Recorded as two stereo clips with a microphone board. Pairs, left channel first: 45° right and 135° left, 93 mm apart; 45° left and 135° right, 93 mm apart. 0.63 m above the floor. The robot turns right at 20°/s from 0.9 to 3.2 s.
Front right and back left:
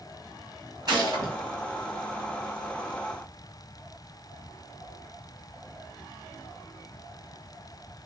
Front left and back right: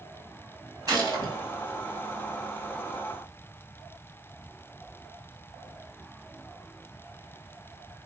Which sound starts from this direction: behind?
A gunshot, at 0.9 s.